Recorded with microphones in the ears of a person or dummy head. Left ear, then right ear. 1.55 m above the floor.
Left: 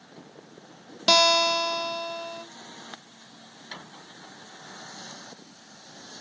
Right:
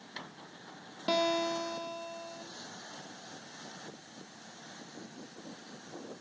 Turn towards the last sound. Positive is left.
turn(degrees=45)  # may be behind; listen again after turning